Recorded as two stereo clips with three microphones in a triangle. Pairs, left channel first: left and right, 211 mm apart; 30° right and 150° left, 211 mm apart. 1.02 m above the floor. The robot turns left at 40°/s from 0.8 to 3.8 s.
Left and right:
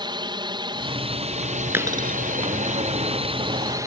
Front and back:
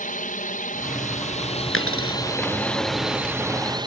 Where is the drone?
35° right; by 3.9 s 155° right.